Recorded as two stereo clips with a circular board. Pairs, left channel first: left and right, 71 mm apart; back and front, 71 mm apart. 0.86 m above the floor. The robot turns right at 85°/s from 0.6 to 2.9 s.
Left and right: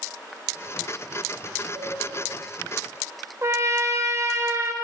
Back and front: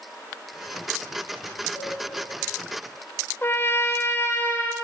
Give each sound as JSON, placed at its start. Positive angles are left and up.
{"t": 1.8, "sound": "a cowbell", "azimuth_deg": -85, "distance_m": 5.5}
{"t": 3.4, "sound": "a trumpet", "azimuth_deg": -125, "distance_m": 1.2}